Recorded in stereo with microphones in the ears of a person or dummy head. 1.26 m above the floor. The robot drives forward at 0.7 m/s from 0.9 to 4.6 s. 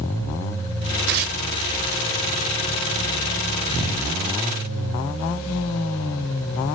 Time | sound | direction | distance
1.1 | tearing paper | 55° right (ahead or behind) | 1.4 m